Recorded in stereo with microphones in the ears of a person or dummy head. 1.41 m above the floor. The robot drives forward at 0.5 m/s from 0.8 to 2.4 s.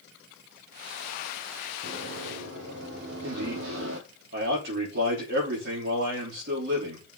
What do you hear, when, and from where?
1.8 s running footsteps: 70° right (ahead or behind), 4 m; by 4.0 s 65° right (ahead or behind), 3 m
3.2 s a man speaking: 60° right (ahead or behind), 4 m